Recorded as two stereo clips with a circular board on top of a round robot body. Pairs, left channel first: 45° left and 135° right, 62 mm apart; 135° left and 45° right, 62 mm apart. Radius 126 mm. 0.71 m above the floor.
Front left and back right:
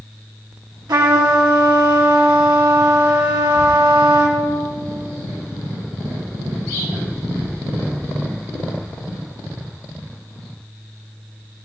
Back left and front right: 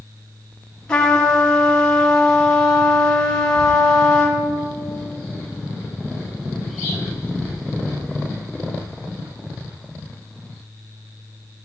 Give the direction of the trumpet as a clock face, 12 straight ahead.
5 o'clock.